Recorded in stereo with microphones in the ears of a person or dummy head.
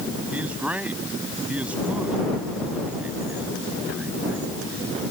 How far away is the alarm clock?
I don't hear an alarm clock.